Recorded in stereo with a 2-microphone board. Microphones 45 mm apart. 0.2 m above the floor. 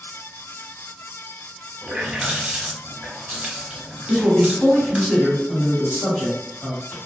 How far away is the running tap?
About 0.8 m.